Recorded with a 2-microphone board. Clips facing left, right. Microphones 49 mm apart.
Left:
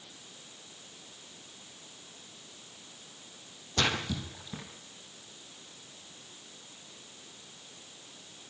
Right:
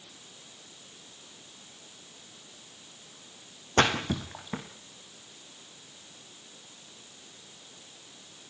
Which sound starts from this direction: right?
A splash, at 3.8 s.